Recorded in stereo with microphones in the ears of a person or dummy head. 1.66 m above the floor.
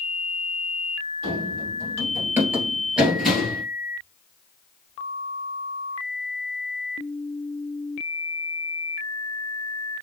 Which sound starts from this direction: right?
Running footsteps, at 1.2 s.